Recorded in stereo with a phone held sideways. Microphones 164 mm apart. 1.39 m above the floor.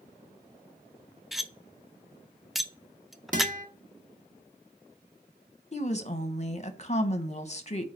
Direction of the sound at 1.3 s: Centre (ahead or behind).